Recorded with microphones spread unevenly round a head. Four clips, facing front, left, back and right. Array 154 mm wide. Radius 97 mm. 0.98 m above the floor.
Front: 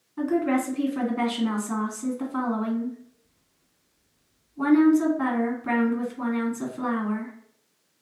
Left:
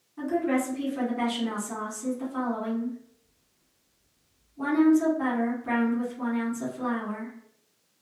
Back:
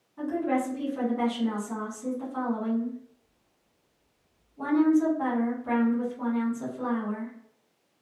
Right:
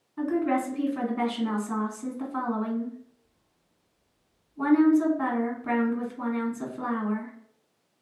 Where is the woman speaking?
15° right, 1.7 m.